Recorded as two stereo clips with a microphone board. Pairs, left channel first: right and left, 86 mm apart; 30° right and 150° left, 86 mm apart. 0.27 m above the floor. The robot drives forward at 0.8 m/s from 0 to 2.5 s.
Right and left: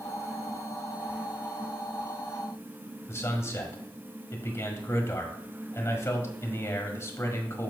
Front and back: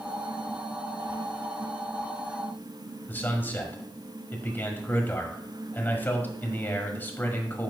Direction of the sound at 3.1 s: 75° right.